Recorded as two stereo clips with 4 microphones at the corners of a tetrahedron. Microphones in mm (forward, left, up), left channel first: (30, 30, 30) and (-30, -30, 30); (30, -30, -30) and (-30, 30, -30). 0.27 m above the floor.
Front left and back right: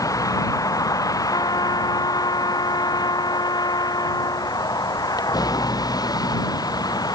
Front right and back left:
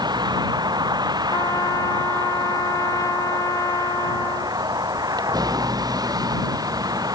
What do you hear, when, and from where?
0.0 s a vehicle: 95° left; by 7.2 s 90° left
1.3 s a trumpet: 5° left